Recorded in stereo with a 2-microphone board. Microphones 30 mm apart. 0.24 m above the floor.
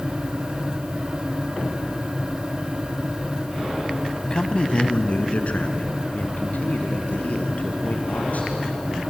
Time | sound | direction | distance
4.2 | a man speaking | 30° left (ahead or behind) | 1.5 m